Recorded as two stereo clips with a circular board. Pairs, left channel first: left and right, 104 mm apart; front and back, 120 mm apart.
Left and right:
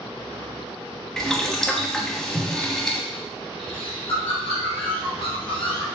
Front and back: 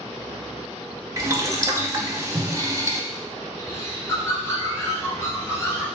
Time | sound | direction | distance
1.2 | boiling | 170° left | 0.6 m
3.6 | a bird | 65° left | 1.8 m